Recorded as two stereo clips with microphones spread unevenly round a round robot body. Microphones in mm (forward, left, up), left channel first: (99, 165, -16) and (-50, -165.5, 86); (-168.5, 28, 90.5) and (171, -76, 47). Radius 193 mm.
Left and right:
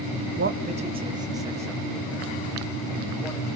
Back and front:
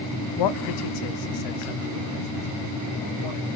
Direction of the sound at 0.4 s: Straight behind.